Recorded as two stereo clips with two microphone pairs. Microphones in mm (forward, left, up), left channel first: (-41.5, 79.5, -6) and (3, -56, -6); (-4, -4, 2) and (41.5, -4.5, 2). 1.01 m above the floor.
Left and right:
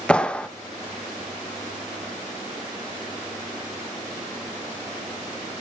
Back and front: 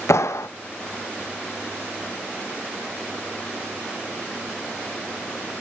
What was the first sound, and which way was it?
A clap, 170° right.